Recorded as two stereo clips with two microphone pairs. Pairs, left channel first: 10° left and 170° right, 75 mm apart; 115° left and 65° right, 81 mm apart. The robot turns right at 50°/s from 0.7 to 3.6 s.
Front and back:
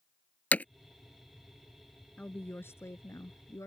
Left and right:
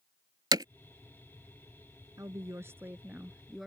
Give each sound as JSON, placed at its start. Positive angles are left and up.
{"t": 0.5, "sound": "hammering", "azimuth_deg": -55}
{"t": 2.2, "sound": "a woman speaking", "azimuth_deg": -50}